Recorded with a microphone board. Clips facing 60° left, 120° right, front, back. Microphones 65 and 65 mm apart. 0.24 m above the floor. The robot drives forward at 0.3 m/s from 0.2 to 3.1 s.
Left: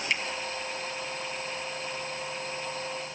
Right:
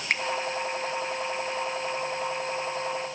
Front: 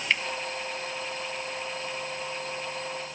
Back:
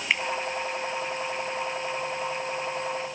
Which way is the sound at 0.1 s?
105° right.